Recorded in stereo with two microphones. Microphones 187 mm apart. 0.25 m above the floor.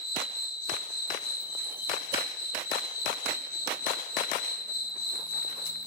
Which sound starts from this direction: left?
An insect, at 0.0 s.